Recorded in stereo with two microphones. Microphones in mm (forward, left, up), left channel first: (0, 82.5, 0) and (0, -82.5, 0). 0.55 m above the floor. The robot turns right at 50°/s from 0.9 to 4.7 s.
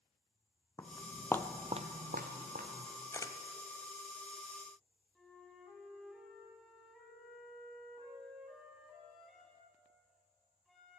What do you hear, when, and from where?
0.8 s footsteps: 20° left (ahead or behind), 1.2 m; by 2.9 s 50° right (ahead or behind), 2 m
3.1 s a camera shutter: 15° left (ahead or behind), 0.7 m; by 3.4 s 30° left (ahead or behind), 0.7 m
5.2 s a flute: centre (ahead or behind), 2.5 m